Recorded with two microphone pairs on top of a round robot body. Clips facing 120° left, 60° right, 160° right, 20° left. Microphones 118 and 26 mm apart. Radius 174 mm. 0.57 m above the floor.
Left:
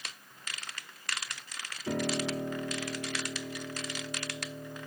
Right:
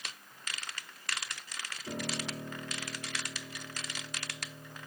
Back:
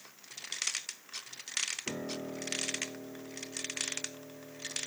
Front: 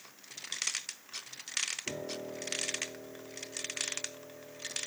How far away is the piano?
About 2.5 m.